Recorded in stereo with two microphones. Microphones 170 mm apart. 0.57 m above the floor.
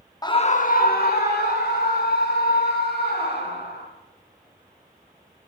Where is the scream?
20° left (ahead or behind), 0.6 m; by 3.9 s 75° left (ahead or behind), 5 m.